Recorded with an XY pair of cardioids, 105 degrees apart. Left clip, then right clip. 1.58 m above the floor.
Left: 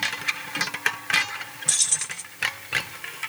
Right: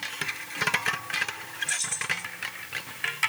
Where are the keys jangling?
55° left, 1.3 m.